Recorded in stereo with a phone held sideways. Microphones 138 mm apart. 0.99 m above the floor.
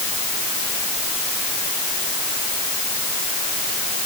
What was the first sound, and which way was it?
Only background noise.